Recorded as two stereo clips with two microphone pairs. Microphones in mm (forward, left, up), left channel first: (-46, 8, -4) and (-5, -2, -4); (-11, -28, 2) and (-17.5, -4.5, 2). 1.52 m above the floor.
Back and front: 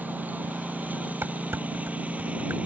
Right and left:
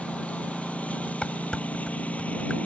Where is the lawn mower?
55° right; by 2.7 s 65° right.